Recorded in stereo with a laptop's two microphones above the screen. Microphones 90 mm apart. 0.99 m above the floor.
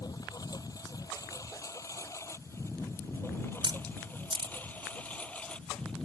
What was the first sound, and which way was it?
A lawn mower, 40° left (ahead or behind).